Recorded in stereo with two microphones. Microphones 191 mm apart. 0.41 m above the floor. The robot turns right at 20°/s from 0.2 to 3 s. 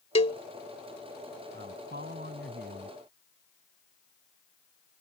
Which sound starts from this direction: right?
A man speaking, at 1.5 s.